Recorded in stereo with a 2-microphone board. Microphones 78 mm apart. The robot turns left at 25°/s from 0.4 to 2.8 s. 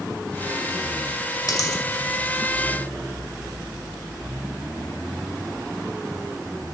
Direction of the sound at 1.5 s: 55° left (ahead or behind).